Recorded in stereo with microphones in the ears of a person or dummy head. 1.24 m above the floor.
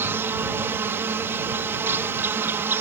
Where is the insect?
15° right (ahead or behind).